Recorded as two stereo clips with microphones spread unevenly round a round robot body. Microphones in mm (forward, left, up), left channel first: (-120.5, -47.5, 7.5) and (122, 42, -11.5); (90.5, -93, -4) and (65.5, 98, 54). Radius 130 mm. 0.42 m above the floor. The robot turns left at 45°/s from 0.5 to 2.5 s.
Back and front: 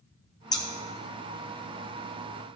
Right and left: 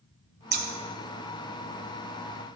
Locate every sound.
0.5 s scissors: 130° left, 1.0 m; by 0.7 s 125° left, 1.0 m